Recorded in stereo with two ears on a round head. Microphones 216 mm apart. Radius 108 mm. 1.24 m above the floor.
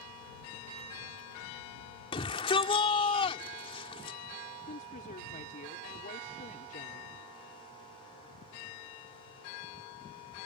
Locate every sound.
2.1 s a shout: 20° left (ahead or behind)
4.7 s a woman speaking: 35° left (ahead or behind)